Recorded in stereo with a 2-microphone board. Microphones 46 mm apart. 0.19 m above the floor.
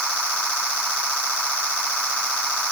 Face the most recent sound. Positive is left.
No sound to turn to.